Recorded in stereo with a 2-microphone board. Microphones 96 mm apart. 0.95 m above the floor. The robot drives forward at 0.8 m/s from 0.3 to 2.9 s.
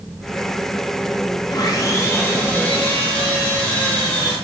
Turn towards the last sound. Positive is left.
turn(degrees=15)  # may be behind; listen again after turning